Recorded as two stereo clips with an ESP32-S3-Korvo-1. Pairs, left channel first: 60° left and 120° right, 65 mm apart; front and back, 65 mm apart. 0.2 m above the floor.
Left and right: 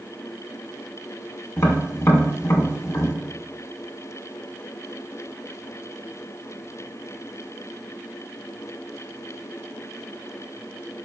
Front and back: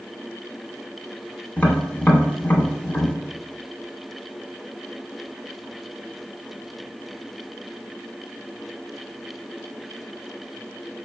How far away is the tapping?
About 0.6 m.